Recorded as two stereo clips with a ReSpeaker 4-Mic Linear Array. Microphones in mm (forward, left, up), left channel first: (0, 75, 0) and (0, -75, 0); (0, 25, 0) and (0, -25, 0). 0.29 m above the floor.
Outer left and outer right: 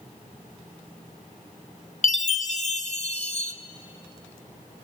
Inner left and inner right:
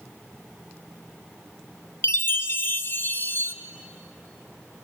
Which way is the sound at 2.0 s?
50° left (ahead or behind).